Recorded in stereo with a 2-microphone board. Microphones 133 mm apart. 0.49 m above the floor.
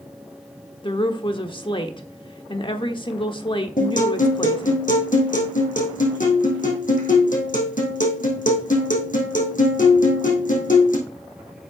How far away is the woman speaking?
About 1.0 m.